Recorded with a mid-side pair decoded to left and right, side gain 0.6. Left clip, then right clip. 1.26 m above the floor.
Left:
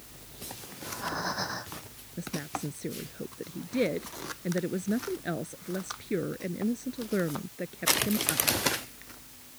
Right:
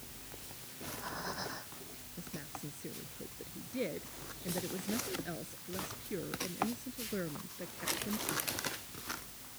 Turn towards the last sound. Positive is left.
turn(degrees=45)